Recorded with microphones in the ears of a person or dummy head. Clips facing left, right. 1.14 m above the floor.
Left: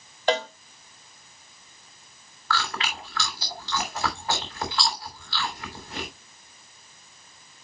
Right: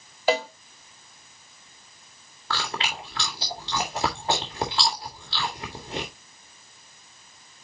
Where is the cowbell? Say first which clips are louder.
Right 1 dB; 10° right (ahead or behind), 0.8 m.